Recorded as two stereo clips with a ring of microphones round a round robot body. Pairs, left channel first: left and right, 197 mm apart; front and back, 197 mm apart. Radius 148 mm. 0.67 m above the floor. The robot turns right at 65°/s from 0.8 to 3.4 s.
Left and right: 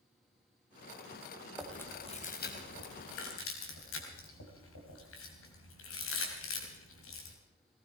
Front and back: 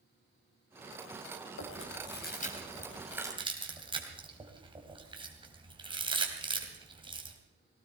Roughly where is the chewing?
Ahead.